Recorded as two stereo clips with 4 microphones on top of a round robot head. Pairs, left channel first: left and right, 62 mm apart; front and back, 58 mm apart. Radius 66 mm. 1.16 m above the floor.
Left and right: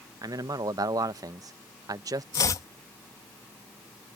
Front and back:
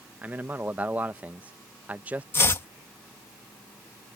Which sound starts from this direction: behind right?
A man speaking, at 0.2 s.